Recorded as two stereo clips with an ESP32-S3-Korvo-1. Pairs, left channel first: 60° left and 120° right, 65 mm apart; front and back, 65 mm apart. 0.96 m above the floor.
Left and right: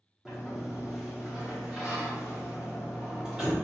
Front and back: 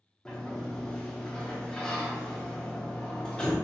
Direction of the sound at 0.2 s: 55° right.